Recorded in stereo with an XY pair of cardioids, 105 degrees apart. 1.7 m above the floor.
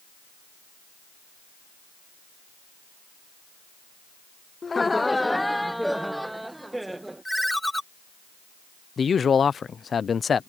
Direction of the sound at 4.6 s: 30° left.